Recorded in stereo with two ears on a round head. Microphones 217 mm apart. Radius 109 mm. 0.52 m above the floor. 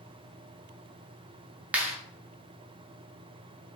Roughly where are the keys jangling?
I don't hear keys jangling.